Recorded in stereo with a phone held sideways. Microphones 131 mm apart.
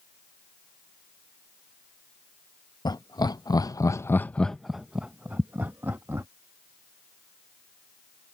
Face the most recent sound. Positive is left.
turn(degrees=-20)  # may be behind; listen again after turning